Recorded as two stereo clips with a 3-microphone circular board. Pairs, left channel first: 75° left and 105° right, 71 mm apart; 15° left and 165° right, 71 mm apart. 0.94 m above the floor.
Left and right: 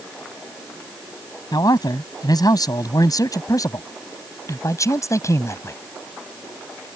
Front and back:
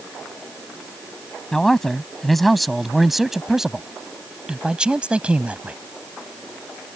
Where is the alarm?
I don't hear an alarm.